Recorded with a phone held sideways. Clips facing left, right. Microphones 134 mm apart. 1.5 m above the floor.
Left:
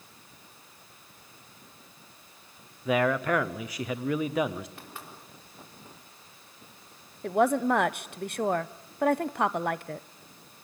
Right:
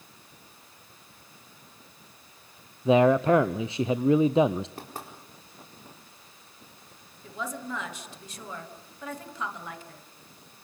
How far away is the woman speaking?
About 0.8 m.